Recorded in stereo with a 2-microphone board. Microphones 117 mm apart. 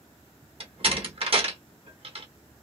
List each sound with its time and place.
0.6 s a door slam: 55° right (ahead or behind), 1.0 m